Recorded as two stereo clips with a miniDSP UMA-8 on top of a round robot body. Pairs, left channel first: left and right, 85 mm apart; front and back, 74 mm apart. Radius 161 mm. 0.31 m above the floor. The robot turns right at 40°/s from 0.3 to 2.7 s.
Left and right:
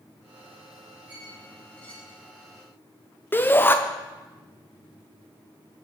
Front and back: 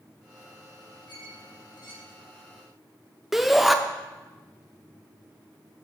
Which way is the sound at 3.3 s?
95° left.